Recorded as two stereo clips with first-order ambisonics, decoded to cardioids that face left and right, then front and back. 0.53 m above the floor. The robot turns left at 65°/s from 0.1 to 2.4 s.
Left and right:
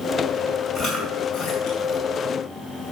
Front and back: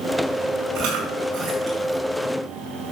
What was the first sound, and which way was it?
Chewing, 170° left.